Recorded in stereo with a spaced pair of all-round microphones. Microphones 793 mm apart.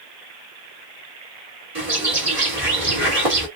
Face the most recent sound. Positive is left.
turn(degrees=-40)  # may be behind; listen again after turning